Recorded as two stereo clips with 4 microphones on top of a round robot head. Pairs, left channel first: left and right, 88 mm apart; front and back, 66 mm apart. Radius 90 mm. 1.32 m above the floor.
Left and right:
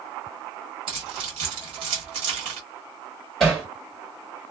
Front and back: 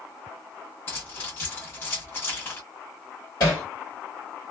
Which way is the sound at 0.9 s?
65° right.